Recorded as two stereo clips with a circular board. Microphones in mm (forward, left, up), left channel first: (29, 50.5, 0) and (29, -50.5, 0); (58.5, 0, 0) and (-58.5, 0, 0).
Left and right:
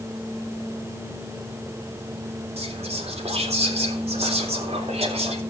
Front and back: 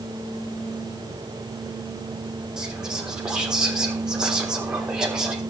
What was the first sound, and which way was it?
Whispering, 95° right.